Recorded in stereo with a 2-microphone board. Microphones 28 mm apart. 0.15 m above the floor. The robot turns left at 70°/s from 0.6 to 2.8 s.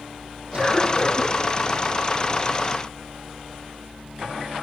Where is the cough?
35° right, 7.5 m; by 1.3 s 85° right, 7.5 m.